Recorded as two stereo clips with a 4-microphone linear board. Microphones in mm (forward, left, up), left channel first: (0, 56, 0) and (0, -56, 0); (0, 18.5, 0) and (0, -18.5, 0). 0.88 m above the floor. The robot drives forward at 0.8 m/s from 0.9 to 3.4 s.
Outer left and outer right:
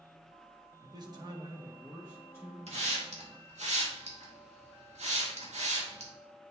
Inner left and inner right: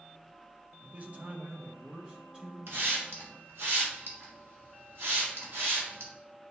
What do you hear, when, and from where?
0.8 s a man speaking: 40° right (ahead or behind), 0.8 m; by 2.6 s 20° right (ahead or behind), 1.4 m
2.7 s a hiss: 70° right (ahead or behind), 1.8 m; by 6.1 s 80° right, 1.7 m